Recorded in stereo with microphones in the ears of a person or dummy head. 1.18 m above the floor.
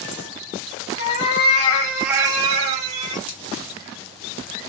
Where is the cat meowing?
45° left (ahead or behind), 1.2 m; by 3.2 s 40° right (ahead or behind), 1.6 m.